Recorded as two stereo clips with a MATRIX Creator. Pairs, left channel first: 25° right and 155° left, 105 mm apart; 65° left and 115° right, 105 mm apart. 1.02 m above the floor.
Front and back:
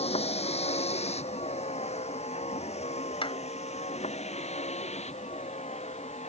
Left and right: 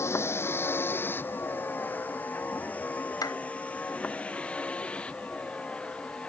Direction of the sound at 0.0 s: Straight ahead.